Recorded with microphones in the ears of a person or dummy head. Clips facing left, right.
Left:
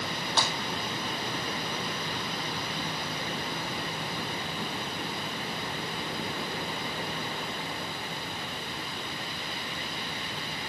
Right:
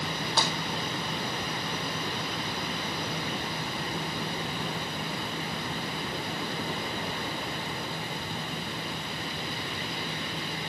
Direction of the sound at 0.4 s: 5° right (ahead or behind).